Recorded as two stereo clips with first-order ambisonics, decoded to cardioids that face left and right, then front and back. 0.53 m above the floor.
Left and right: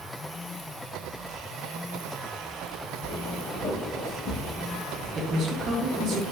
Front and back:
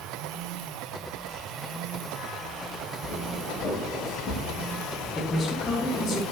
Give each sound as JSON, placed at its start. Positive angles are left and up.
{"t": 3.0, "sound": "footsteps", "azimuth_deg": 65, "distance_m": 1.9}
{"t": 5.2, "sound": "a man speaking", "azimuth_deg": -65, "distance_m": 0.7}